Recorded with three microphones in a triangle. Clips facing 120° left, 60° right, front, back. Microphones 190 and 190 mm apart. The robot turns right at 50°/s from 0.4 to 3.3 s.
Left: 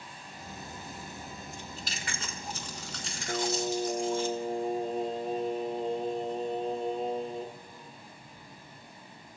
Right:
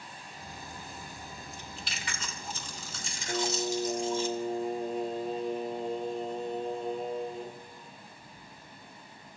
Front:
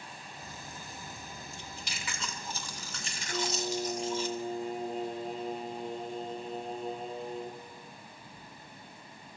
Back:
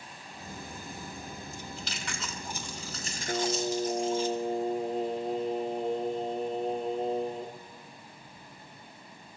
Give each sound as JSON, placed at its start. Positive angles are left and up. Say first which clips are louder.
{"t": 1.5, "sound": "chewing", "louder": "left 2 dB, back 4 dB", "azimuth_deg": 55, "distance_m": 2.5}
{"t": 3.3, "sound": "singing", "louder": "left 1 dB, back 4 dB", "azimuth_deg": -175, "distance_m": 1.3}